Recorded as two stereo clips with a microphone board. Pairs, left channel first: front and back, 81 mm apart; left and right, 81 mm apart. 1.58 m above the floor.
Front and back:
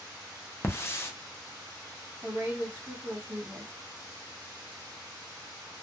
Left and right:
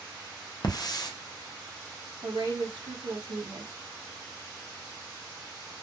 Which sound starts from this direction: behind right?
A woman speaking, at 2.2 s.